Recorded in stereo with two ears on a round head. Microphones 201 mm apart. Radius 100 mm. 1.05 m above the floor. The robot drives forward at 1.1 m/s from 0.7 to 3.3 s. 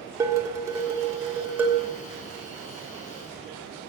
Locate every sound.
0.2 s dishes clattering: 15° right (ahead or behind), 1.6 m; by 1.9 s 10° right (ahead or behind), 3 m